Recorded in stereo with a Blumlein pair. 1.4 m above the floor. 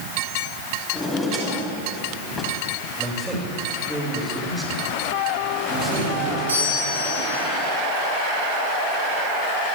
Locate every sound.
0.9 s a drawer: 5° left, 5 m
3.0 s a man speaking: 10° right, 7 m
5.7 s a doorbell: 70° right, 8 m